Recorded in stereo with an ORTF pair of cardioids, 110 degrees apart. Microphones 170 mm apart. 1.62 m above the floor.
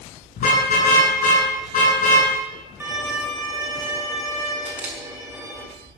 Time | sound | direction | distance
0.4 | a car horn | 50° left | 9 m
2.8 | a violin | 15° right | 4.5 m
4.7 | a camera shutter | 10° right | 5.5 m